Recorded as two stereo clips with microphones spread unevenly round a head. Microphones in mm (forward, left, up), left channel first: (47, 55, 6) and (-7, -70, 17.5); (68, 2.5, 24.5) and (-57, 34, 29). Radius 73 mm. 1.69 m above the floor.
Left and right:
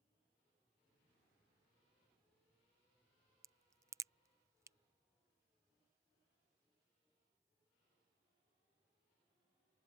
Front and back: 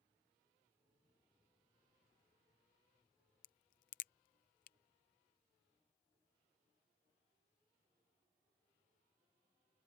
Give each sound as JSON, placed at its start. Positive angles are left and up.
{"t": 3.4, "sound": "a crack", "azimuth_deg": -45}